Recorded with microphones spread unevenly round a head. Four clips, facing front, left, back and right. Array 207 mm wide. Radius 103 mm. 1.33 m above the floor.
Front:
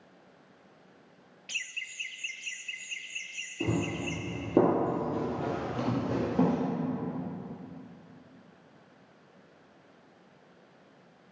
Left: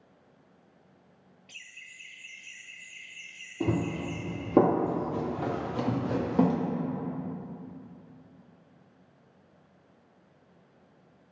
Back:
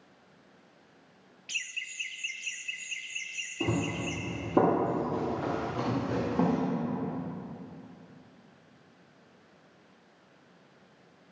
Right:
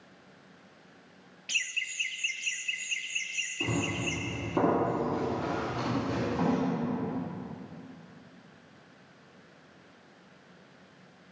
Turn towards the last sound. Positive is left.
turn(degrees=65)